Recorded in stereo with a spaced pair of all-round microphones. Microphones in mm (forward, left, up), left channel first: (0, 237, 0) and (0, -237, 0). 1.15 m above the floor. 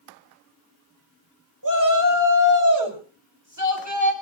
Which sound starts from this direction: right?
A shout, at 1.6 s.